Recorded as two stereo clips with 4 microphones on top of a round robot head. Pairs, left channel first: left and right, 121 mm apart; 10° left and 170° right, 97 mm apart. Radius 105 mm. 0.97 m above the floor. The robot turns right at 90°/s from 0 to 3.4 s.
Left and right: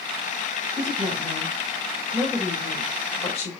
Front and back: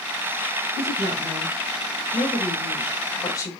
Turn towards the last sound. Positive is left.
turn(degrees=65)